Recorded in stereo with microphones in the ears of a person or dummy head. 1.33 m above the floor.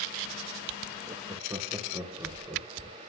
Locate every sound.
1.1 s laughter: 15° right (ahead or behind), 0.9 m; by 3.1 s 5° right (ahead or behind), 2 m